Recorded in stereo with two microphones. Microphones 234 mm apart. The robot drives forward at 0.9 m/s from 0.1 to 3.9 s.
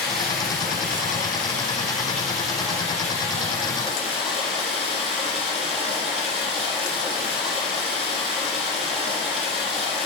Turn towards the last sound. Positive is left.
turn(degrees=0)  # may be behind; listen again after turning